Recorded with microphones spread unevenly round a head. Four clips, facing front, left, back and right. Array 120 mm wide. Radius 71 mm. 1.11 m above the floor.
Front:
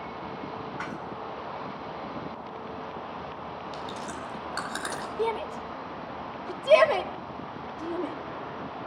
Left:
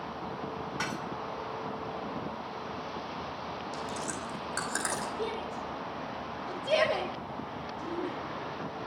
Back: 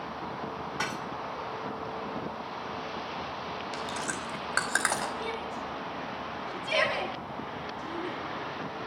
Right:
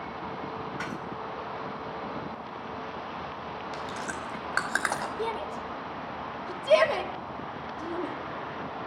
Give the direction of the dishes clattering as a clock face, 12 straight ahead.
7 o'clock.